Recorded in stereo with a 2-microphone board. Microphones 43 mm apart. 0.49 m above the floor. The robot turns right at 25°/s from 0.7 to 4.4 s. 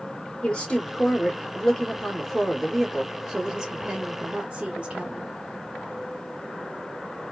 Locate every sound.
0.4 s a woman speaking: 135° left, 1.0 m; by 5.3 s 135° right, 1.0 m